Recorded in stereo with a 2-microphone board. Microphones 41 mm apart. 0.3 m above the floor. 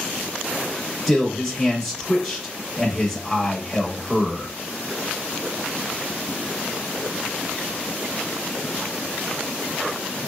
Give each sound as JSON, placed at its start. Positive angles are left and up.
{"t": 1.1, "sound": "a man speaking", "side_deg": 0, "distance_m": 0.9}